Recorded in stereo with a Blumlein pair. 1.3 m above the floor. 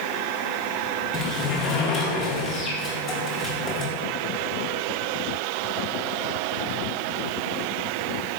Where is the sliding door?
20° left, 1.0 m.